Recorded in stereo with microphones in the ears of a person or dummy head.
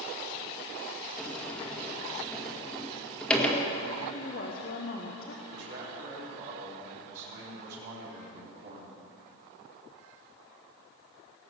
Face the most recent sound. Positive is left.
turn(degrees=-65)  # may be behind; listen again after turning